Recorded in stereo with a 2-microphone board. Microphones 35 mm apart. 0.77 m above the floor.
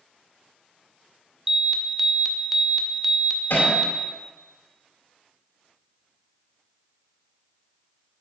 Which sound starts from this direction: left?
Hammering, at 3.5 s.